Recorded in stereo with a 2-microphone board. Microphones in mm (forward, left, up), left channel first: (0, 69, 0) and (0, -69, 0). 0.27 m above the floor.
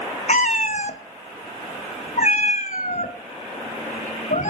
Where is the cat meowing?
65° left (ahead or behind), 0.7 m.